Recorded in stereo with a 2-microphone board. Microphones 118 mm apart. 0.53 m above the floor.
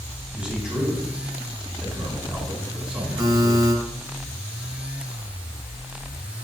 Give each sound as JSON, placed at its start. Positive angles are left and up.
{"t": 0.3, "sound": "a man speaking", "side_deg": -5, "distance_m": 4.0}
{"t": 3.2, "sound": "a buzzer", "side_deg": -25, "distance_m": 3.0}